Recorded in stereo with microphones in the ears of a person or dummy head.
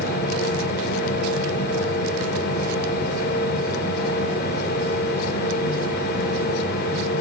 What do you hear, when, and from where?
0.0 s a machine running: 55° left (ahead or behind), 1.4 m